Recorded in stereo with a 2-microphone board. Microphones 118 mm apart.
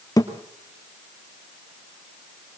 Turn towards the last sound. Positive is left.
turn(degrees=30)  # may be behind; listen again after turning